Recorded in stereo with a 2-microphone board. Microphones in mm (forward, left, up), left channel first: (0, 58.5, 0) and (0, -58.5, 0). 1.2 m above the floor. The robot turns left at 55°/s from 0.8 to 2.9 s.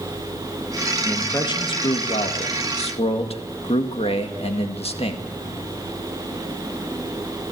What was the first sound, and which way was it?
A man speaking, 160° left.